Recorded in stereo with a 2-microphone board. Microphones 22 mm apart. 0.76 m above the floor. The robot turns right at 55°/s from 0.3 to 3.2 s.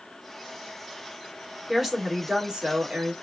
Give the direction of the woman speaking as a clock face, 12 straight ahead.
6 o'clock.